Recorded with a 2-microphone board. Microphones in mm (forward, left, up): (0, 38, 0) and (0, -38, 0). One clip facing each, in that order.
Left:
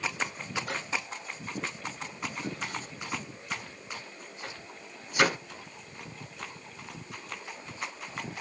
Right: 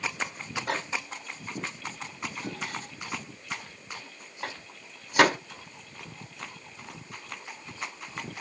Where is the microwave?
80° right, 4.5 m.